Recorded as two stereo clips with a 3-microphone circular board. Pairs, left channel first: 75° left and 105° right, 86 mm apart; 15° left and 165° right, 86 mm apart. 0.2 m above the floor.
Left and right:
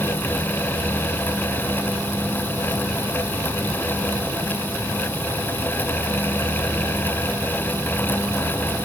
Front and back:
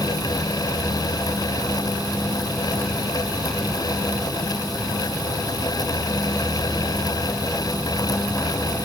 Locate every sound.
Only background noise.